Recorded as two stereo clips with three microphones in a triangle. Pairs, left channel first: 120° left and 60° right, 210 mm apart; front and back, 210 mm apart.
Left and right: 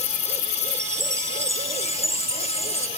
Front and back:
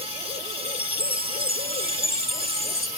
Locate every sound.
0.7 s a chime: 135° right